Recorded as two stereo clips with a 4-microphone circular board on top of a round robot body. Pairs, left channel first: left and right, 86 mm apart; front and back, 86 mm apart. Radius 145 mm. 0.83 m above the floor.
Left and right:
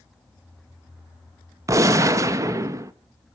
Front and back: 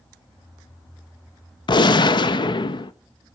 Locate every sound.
1.7 s a gunshot: 35° right, 0.6 m